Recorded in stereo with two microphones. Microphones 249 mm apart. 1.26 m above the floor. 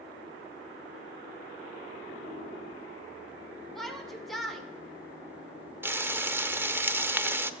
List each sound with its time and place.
3.8 s a shout: centre (ahead or behind), 2.5 m
5.8 s frying: 10° right (ahead or behind), 0.9 m